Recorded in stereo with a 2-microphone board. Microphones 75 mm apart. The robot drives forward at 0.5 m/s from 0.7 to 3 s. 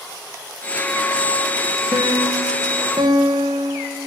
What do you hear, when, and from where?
1.9 s a piano: 60° right (ahead or behind), 1.0 m; by 4.0 s 80° right, 0.9 m